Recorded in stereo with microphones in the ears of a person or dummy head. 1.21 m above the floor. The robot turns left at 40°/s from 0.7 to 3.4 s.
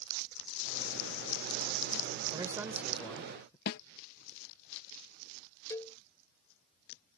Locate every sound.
2.3 s a man speaking: 150° right; by 3.6 s 165° left
3.7 s a snare drum: 55° left (ahead or behind)
5.7 s a cowbell: 15° left (ahead or behind)